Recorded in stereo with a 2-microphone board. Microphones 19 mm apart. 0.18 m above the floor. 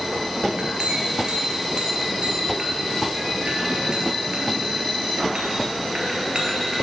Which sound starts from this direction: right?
A clink, at 0.5 s.